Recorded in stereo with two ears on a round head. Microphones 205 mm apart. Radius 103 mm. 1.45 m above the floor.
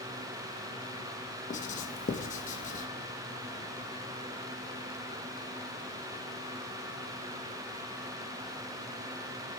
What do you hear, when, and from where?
1.5 s writing: 35° left (ahead or behind), 1.5 m